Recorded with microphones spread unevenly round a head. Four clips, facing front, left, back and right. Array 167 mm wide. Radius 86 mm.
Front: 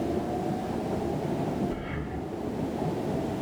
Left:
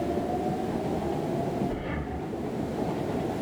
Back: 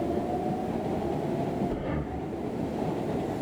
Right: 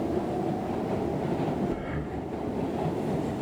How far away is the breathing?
About 1.4 m.